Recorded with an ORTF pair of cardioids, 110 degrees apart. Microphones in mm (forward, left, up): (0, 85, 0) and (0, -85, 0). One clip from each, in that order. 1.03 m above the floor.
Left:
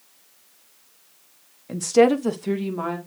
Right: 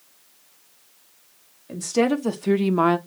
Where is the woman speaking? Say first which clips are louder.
Left 5 dB; 25° left, 1.3 m; by 3.0 s 65° right, 0.7 m.